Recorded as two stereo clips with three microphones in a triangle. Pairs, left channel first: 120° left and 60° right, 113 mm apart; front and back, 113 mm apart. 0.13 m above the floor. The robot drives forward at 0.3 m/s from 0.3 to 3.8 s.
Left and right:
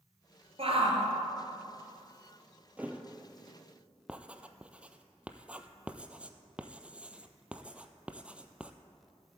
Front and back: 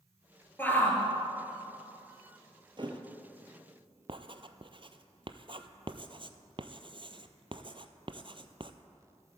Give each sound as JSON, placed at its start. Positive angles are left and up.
{"t": 0.6, "sound": "a shout", "azimuth_deg": -70, "distance_m": 2.5}
{"t": 2.8, "sound": "a thud", "azimuth_deg": -135, "distance_m": 1.4}
{"t": 4.1, "sound": "writing", "azimuth_deg": -140, "distance_m": 0.7}